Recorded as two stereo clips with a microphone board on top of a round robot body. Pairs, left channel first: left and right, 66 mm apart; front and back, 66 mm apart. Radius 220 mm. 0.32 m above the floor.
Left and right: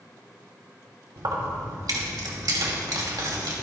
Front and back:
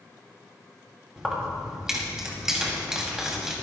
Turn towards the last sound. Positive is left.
turn(degrees=-100)